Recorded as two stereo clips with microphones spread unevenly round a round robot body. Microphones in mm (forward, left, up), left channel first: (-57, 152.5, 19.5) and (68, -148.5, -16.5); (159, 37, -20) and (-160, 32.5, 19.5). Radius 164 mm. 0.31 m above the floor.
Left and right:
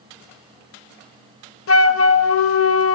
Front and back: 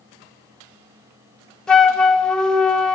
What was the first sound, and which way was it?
A flute, 80° left.